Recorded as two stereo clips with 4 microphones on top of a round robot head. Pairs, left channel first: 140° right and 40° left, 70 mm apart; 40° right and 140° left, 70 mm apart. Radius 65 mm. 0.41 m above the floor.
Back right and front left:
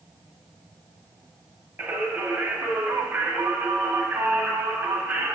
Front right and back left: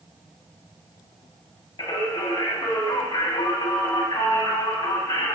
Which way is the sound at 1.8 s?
25° right.